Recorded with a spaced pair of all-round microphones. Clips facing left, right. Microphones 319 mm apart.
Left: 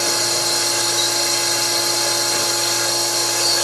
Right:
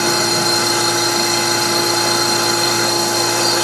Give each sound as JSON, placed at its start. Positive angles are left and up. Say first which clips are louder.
{"t": 0.0, "sound": "a machine running", "louder": "right 7 dB", "side_deg": -65, "distance_m": 1.1}